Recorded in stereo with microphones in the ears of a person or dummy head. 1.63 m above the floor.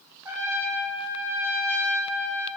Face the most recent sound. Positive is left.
turn(degrees=-10)  # may be behind; listen again after turning